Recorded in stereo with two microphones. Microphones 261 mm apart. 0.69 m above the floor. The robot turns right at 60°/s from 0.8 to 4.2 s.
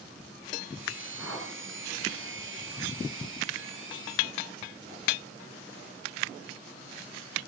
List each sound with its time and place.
1.2 s a whoosh: 60° left (ahead or behind), 5 m; by 1.5 s 80° left, 5 m